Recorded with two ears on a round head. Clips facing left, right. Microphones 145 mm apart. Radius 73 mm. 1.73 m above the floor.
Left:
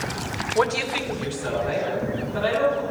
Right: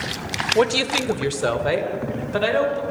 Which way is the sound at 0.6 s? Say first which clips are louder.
Right 4 dB; 20° right (ahead or behind).